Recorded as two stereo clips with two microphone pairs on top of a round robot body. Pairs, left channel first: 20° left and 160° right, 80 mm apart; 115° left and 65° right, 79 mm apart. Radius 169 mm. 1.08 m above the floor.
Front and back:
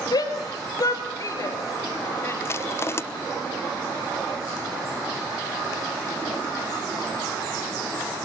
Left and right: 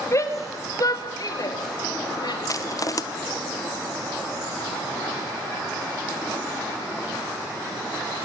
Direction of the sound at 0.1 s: 60° left.